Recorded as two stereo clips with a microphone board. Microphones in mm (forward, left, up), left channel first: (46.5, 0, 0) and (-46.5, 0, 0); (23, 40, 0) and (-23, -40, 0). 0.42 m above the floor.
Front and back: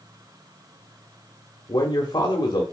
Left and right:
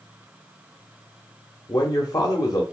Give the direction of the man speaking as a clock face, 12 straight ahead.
11 o'clock.